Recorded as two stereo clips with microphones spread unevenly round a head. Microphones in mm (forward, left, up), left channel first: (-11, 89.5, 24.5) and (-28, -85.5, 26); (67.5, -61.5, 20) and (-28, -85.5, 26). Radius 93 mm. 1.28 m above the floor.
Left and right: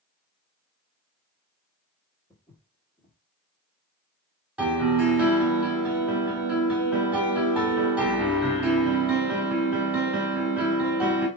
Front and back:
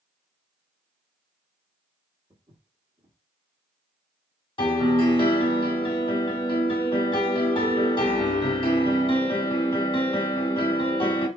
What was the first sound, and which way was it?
Footsteps, 160° left.